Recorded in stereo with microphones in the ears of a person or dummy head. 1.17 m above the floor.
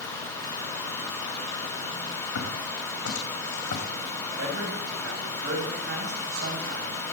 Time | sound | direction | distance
2.4 | footsteps | 75° left (ahead or behind) | 5.5 m
4.4 | a man speaking | 85° right | 8 m